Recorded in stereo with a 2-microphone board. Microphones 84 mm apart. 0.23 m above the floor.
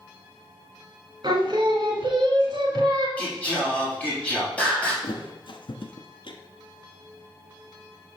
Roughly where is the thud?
Left.